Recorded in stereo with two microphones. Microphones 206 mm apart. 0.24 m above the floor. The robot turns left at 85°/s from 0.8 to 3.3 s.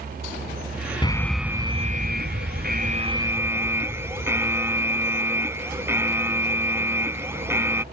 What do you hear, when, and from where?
1.0 s an alarm: 30° left; by 7.8 s 165° right